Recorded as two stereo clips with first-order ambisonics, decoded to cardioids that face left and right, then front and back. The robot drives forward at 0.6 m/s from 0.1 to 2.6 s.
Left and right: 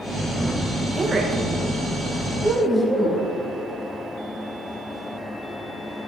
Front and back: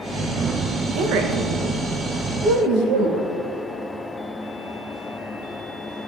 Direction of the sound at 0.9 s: 160° right.